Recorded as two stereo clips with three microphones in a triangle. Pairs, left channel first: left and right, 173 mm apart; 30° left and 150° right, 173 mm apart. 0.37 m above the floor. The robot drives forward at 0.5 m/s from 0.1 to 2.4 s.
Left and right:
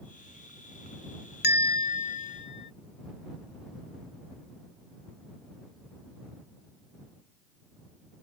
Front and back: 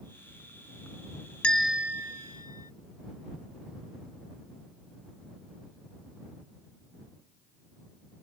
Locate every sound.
1.4 s a bell: 115° left; by 2.7 s 145° left